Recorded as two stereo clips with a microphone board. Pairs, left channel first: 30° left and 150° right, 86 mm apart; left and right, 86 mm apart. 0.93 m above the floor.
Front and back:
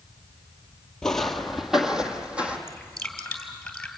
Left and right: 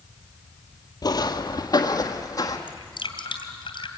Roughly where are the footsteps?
Left.